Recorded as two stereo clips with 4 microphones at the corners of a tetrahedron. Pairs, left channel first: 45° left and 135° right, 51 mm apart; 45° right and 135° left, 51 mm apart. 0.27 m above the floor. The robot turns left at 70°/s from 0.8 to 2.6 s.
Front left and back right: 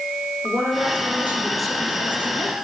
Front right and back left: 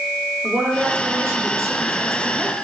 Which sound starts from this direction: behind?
A woman speaking, at 0.4 s.